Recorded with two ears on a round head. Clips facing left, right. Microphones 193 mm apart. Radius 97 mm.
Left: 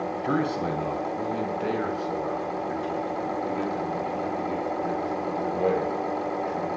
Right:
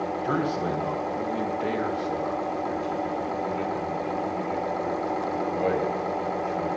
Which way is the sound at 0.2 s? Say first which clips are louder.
Left 1 dB; 30° left (ahead or behind).